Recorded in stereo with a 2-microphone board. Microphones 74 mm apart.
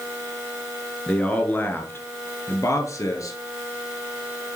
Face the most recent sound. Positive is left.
turn(degrees=50)  # may be behind; listen again after turning